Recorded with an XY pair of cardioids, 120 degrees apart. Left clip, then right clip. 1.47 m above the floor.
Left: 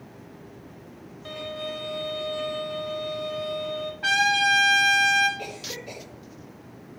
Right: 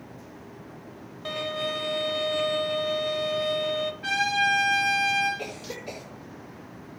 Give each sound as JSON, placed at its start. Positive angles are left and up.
{"t": 1.2, "sound": "a violin", "azimuth_deg": -35, "distance_m": 0.7}
{"t": 4.0, "sound": "a trumpet", "azimuth_deg": 45, "distance_m": 2.0}
{"t": 5.4, "sound": "a cough", "azimuth_deg": -20, "distance_m": 2.0}